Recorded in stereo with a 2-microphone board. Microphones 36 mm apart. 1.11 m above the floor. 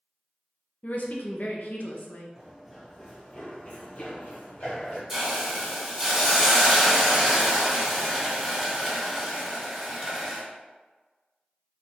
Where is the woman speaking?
50° left (ahead or behind), 0.7 m.